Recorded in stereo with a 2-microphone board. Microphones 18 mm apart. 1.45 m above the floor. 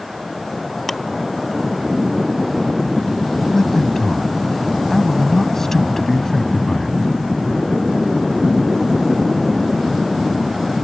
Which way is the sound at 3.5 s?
20° left (ahead or behind).